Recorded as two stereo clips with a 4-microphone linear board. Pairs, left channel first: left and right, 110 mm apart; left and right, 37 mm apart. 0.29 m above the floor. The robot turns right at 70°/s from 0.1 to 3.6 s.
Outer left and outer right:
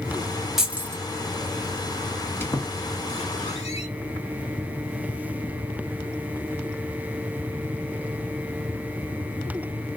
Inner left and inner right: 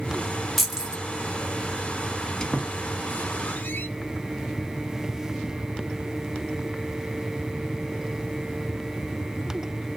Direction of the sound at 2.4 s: 20° left (ahead or behind).